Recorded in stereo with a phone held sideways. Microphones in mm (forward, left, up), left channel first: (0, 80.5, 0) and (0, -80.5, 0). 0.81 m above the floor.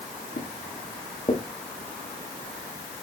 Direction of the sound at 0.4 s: 50° left (ahead or behind).